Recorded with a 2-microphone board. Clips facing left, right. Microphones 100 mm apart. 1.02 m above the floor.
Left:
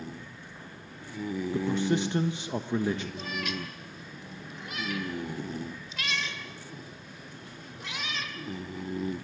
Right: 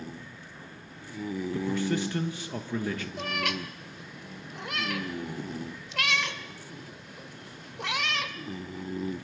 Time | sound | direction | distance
1.5 | a man speaking | 20° left (ahead or behind) | 1.2 m
3.2 | a cat meowing | 75° right (ahead or behind) | 1.6 m